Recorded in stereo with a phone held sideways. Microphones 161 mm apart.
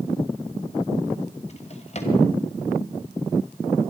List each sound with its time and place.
1.5 s a drawer: 40° left (ahead or behind), 1.9 m